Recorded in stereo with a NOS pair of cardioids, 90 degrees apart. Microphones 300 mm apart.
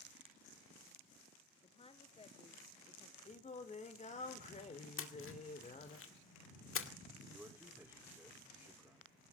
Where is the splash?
45° left, 2 m.